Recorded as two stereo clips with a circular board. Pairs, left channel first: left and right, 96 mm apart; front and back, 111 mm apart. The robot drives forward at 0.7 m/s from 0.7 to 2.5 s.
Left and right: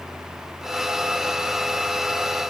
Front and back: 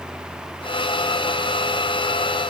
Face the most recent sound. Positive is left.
No sound to turn to.